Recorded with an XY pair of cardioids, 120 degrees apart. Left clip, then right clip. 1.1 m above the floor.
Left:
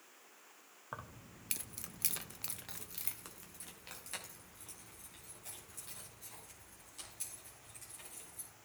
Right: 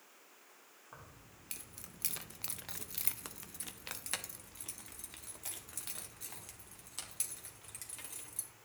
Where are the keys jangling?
60° left, 1.0 m; by 8.5 s 70° right, 4 m.